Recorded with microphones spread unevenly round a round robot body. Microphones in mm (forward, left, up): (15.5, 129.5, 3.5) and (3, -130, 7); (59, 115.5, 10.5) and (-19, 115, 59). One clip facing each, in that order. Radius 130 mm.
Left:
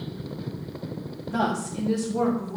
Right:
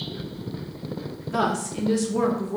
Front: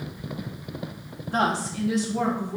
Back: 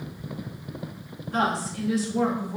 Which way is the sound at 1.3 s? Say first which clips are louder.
Right 1 dB, front 1 dB; 20° right.